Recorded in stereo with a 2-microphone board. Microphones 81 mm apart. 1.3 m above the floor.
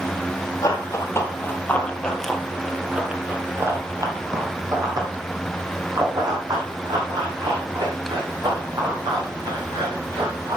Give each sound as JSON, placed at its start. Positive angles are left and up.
{"t": 0.6, "sound": "running footsteps", "side_deg": 40, "distance_m": 1.7}